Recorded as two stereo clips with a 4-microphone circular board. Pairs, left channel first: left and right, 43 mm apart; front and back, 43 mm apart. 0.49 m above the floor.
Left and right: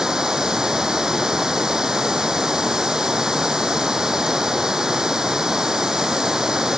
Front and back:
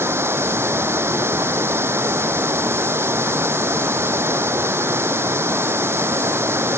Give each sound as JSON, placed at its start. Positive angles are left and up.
{"t": 0.0, "sound": "running water", "azimuth_deg": -165}